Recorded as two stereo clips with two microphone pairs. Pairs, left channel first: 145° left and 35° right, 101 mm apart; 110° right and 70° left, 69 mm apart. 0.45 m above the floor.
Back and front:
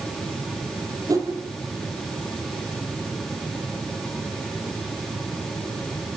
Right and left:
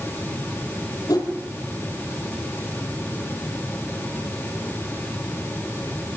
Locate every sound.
1.1 s a whoosh: 90° right, 4 m